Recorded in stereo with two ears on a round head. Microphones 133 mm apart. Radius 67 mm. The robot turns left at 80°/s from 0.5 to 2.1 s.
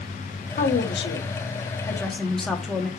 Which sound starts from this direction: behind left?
A woman speaking, at 0.6 s.